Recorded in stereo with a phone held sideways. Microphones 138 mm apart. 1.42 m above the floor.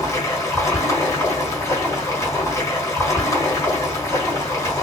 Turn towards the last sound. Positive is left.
turn(degrees=20)  # may be behind; listen again after turning